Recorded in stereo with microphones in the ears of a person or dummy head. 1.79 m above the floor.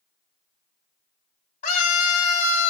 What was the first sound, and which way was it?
A scream, 45° left (ahead or behind).